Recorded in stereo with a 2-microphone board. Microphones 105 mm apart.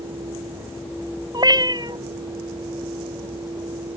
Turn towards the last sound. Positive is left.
turn(degrees=-40)  # may be behind; listen again after turning